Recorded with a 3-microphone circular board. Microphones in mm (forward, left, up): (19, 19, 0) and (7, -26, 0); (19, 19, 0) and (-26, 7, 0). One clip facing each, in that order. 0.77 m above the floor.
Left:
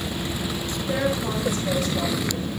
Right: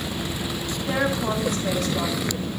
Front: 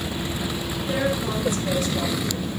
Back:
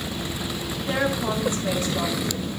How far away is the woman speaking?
About 2 m.